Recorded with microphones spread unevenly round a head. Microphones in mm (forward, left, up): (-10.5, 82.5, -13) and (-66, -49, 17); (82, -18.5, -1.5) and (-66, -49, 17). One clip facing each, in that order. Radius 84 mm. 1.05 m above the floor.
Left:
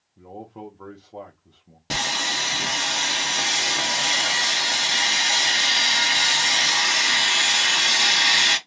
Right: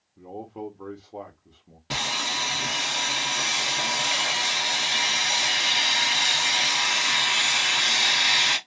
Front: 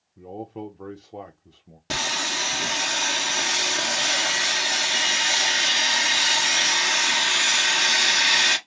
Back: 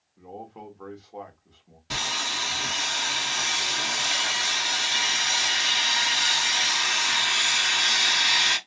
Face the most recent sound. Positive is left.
turn(degrees=30)